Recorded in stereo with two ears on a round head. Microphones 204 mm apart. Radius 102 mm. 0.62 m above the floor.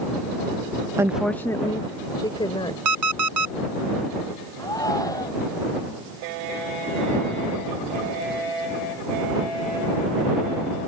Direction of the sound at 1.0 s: 10° right (ahead or behind).